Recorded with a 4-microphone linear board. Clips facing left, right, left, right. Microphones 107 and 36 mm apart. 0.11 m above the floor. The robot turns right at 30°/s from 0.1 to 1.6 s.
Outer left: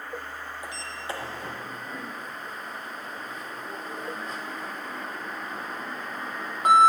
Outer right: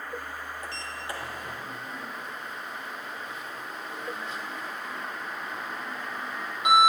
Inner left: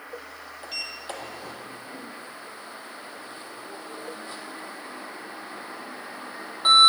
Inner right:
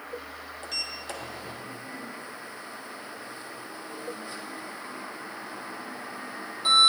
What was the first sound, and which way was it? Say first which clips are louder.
A sliding door: outer left 1 dB, inner left 1 dB; 10° left (ahead or behind).